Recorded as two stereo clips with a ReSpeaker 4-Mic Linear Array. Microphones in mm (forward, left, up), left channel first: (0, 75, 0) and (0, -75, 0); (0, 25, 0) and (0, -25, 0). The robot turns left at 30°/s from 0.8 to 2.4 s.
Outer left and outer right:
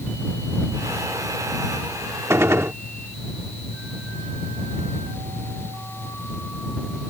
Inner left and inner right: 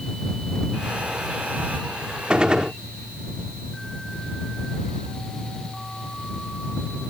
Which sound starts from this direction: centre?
A gunshot, at 2.3 s.